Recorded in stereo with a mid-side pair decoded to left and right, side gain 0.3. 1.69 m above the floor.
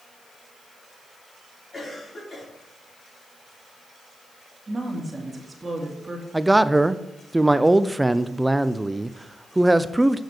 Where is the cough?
45° left, 4.5 m.